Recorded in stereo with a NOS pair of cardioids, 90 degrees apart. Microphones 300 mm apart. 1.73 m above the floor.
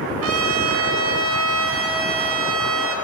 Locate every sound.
0.2 s a trumpet: 50° right, 9.5 m